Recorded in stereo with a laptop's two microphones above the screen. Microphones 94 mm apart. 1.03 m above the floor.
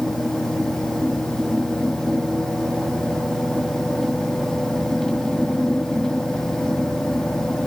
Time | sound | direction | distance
0.0 | a fan | 5° left (ahead or behind) | 0.8 m